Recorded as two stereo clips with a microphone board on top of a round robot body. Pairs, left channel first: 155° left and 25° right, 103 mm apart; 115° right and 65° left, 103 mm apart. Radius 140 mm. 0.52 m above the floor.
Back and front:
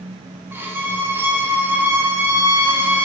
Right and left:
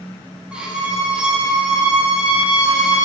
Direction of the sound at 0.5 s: Straight ahead.